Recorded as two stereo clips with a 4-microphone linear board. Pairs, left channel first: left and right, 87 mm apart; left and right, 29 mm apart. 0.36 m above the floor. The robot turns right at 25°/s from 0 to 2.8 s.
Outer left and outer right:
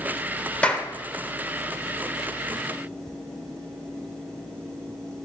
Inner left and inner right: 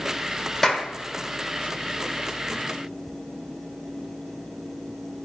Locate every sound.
0.6 s a clap: 10° left (ahead or behind), 1.0 m; by 0.9 s 5° left (ahead or behind), 1.0 m